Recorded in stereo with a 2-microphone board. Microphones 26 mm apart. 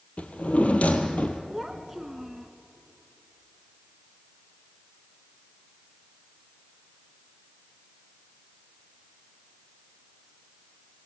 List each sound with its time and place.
0.2 s a drawer: 55° left (ahead or behind), 1.9 m
1.5 s a child speaking: 10° right (ahead or behind), 1.1 m